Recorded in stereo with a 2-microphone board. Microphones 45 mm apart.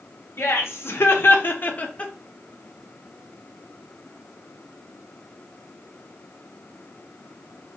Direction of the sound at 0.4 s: 75° left (ahead or behind).